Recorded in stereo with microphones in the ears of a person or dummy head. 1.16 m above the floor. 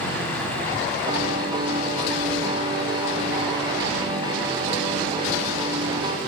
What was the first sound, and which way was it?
A piano, 25° right (ahead or behind).